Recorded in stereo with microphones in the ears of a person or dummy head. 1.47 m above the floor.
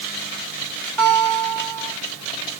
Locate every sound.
1.0 s a guitar: centre (ahead or behind), 1.8 m